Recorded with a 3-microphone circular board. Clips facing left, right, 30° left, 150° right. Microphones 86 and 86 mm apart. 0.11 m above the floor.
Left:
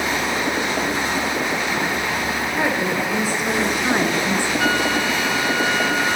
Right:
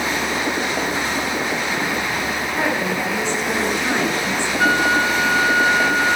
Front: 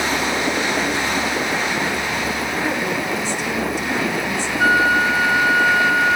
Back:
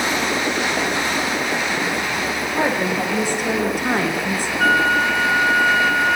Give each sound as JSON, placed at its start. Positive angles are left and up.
{"t": 2.5, "sound": "a woman speaking", "azimuth_deg": 175, "distance_m": 9.5}
{"t": 4.6, "sound": "a flute", "azimuth_deg": -50, "distance_m": 2.5}